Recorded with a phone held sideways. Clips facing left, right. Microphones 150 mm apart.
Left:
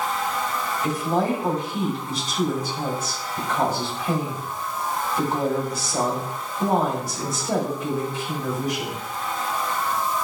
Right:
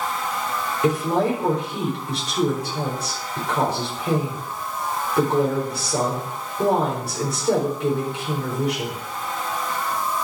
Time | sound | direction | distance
0.8 | a woman speaking | 70° right (ahead or behind) | 4.5 m